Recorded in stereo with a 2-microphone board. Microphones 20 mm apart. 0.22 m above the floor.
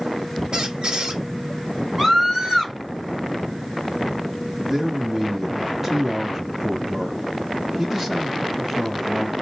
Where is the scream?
20° right (ahead or behind), 1.6 m.